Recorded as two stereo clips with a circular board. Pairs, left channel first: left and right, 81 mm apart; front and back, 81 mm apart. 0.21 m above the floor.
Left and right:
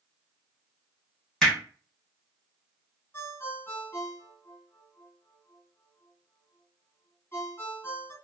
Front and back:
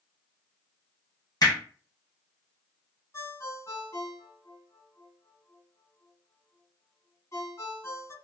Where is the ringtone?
40° left, 1.5 m.